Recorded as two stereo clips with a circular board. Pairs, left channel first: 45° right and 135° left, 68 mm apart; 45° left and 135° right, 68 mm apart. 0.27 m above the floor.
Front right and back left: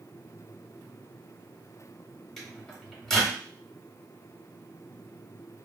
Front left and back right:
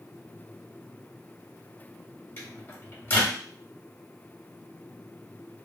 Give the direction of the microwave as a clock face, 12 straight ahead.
11 o'clock.